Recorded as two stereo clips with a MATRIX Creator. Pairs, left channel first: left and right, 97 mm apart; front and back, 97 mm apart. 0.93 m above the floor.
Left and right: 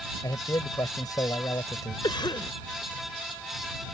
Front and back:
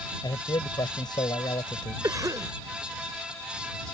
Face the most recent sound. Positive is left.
turn(degrees=130)